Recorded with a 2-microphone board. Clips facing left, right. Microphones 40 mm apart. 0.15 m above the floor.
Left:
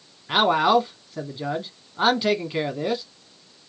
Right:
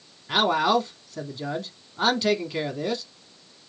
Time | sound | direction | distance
0.3 | a man speaking | 15° left (ahead or behind) | 1.1 m